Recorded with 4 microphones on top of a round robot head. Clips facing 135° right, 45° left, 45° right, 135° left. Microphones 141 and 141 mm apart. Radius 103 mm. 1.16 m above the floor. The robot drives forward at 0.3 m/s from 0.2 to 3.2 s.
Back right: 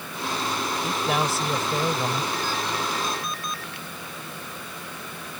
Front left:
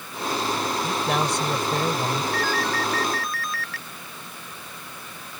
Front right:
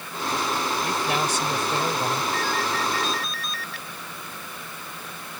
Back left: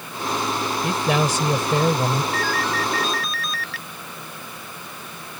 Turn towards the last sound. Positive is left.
turn(degrees=155)